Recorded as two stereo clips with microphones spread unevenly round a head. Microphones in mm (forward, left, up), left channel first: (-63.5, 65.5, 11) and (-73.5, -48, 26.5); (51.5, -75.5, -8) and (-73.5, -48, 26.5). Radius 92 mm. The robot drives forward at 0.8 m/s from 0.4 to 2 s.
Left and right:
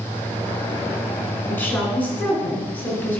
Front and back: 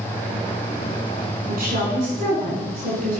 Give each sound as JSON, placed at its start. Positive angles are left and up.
{"t": 1.5, "sound": "a woman speaking", "azimuth_deg": 160, "distance_m": 10.0}